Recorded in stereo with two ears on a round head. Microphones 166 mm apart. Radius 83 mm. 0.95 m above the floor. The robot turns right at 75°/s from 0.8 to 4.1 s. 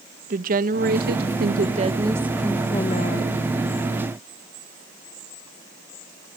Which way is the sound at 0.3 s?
120° right.